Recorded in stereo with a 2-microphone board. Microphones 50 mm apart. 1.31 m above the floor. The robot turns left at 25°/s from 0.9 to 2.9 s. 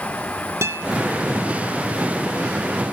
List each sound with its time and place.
0.6 s a guitar: 65° right (ahead or behind), 1.9 m